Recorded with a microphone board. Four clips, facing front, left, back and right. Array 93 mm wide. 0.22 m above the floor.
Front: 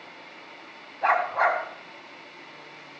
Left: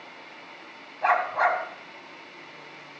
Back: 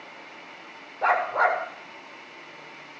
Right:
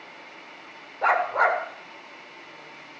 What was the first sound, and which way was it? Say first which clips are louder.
A dog barking: right 1 dB, even; 145° right.